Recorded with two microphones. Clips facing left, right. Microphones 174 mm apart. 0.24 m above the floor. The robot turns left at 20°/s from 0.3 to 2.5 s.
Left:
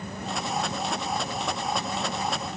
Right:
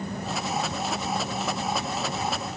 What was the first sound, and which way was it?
Only background noise.